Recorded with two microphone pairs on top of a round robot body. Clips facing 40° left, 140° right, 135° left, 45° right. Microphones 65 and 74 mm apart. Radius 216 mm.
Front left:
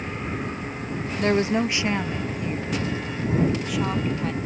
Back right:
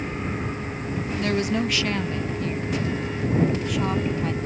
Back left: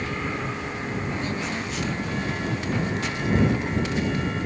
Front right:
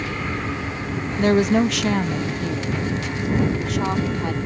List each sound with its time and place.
1.2 s a woman speaking: 15° right; by 4.4 s 50° right